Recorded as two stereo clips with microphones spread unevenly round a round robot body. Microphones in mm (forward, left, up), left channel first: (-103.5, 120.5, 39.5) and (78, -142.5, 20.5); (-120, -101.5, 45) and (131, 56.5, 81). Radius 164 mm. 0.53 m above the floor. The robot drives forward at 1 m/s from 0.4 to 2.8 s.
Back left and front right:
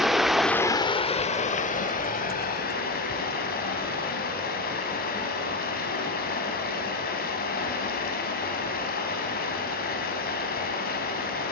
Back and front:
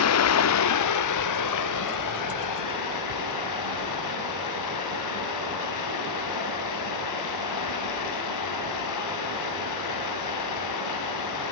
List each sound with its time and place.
0.0 s running water: 140° right, 0.8 m; by 11.5 s 170° right, 3 m